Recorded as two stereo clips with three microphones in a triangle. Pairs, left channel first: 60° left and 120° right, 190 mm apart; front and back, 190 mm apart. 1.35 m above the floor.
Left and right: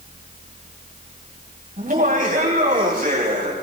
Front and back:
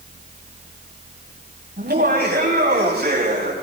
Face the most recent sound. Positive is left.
turn(degrees=-155)